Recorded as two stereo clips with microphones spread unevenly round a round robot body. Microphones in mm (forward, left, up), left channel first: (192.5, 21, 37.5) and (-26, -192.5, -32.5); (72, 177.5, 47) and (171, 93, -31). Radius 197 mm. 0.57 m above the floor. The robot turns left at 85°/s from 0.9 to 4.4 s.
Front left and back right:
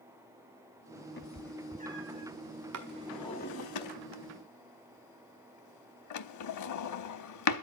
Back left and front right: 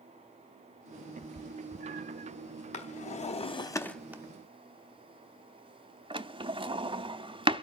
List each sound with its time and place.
1.2 s a cat meowing: 15° right, 1.4 m; by 2.3 s 110° right, 1.4 m
2.7 s a drawer: 165° left, 1.0 m; by 7.6 s 25° left, 1.0 m